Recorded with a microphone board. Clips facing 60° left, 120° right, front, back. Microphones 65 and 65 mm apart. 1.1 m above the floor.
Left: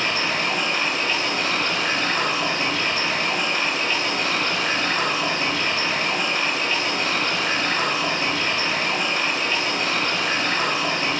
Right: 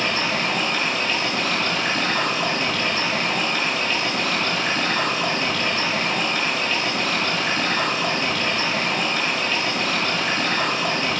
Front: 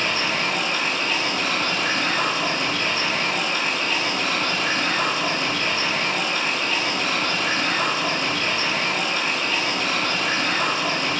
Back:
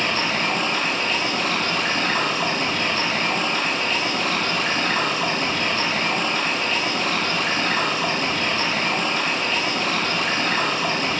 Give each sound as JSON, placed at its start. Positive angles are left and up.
{"t": 0.0, "sound": "running water", "azimuth_deg": 130, "distance_m": 1.6}